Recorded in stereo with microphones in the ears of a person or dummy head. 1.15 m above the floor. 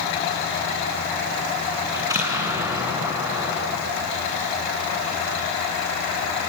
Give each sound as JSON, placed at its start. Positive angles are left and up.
{"t": 1.9, "sound": "an explosion", "side_deg": -15, "distance_m": 8.0}